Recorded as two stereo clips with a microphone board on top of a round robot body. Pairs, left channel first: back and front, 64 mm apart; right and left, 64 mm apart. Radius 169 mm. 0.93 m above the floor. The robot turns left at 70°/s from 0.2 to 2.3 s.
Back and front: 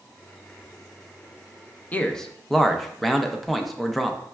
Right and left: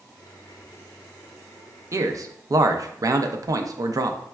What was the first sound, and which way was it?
A man speaking, 115° left.